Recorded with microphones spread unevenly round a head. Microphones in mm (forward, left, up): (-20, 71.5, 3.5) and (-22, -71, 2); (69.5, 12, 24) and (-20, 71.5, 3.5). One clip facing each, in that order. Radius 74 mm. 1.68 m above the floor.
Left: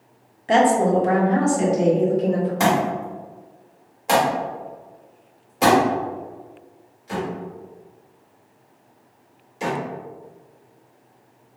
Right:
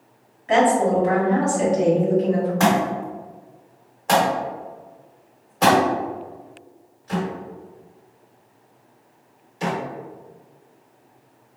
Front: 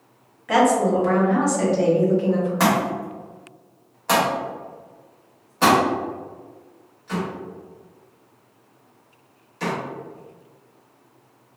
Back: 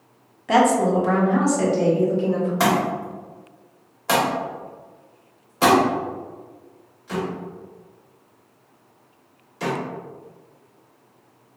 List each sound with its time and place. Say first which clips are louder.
0.5 s a woman speaking: left 1 dB, even; 90° left, 0.7 m; by 2.5 s 50° left, 2 m
2.6 s a thud: even, even; 45° left, 1.4 m